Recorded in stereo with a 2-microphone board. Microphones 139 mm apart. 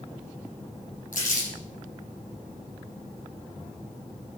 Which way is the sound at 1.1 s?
75° left (ahead or behind).